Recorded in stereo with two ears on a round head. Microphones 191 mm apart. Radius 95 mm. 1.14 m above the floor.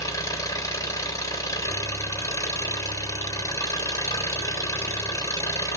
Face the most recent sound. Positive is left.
turn(degrees=15)  # may be behind; listen again after turning